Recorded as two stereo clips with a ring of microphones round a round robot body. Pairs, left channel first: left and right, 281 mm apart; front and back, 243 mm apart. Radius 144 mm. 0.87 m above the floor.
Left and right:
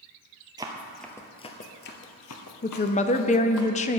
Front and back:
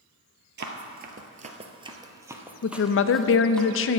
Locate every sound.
0.6 s running footsteps: 160° right, 1.1 m; by 3.6 s 85° left, 1.8 m
2.6 s a woman speaking: 25° left, 0.6 m